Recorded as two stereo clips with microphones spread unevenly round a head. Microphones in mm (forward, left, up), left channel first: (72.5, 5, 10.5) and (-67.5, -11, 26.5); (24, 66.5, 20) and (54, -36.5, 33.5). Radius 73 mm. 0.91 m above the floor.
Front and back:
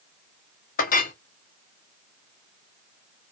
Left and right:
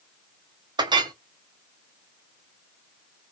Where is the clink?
20° right, 0.6 m.